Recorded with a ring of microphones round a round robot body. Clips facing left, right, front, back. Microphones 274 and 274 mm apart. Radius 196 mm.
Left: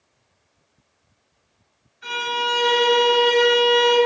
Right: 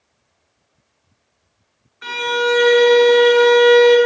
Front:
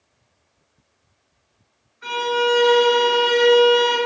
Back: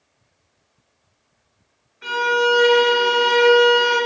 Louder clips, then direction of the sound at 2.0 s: Right 10 dB, back 1 dB; 120° right.